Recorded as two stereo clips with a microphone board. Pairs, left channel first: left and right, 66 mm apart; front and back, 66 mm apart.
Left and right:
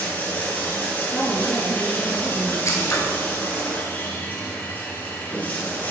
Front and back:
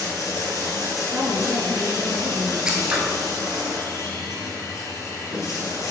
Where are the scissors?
105° left, 1.5 m.